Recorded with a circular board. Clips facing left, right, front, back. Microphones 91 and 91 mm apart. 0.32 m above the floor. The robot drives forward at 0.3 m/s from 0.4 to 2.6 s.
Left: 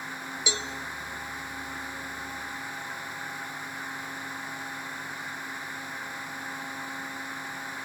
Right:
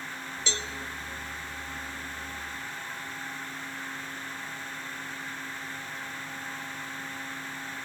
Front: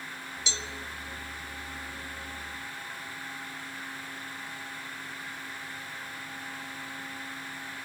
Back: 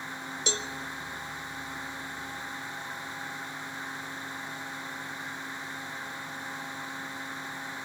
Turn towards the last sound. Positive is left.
turn(degrees=170)